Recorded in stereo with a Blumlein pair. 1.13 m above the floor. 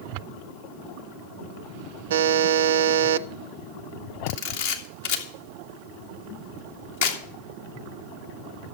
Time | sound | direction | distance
2.1 | a buzzer | 60° right | 0.6 m
4.3 | a camera shutter | 60° left | 2 m